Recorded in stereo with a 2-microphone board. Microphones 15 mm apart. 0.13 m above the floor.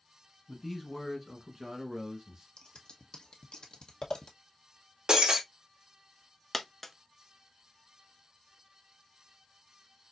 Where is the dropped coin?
10° left (ahead or behind), 0.6 m.